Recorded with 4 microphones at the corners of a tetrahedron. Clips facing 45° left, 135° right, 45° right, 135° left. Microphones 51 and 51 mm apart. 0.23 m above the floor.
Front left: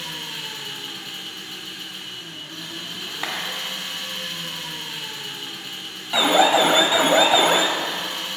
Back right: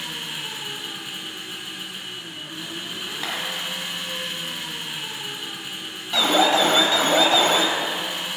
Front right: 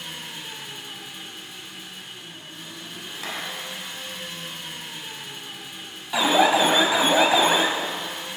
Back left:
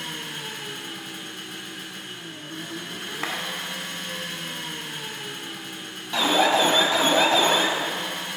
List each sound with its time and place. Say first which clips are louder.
0.0 s an engine running: back right 1 dB, back left 3 dB; 150° left, 0.8 m
3.2 s a clap: front left 1 dB, back left 3 dB; 110° left, 1.7 m
6.1 s an alarm: front left 2 dB, front right 2 dB; 5° left, 0.7 m